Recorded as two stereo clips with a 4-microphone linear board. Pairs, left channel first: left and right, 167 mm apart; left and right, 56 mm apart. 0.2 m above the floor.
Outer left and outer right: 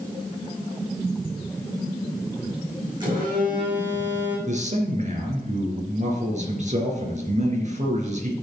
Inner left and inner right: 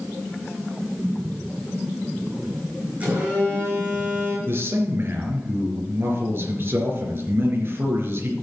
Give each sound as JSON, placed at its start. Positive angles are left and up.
{"t": 3.0, "sound": "a phone buzzing", "side_deg": -30, "distance_m": 6.5}
{"t": 4.5, "sound": "a man speaking", "side_deg": -45, "distance_m": 3.5}